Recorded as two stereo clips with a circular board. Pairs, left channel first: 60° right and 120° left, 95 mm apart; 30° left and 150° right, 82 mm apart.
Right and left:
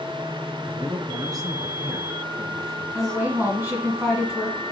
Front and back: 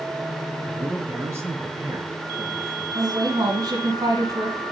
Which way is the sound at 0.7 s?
150° left.